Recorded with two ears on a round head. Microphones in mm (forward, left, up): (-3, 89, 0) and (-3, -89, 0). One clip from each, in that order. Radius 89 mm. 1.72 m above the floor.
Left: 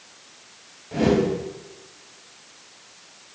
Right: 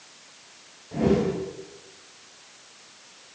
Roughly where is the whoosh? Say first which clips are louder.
Left 3 dB; left.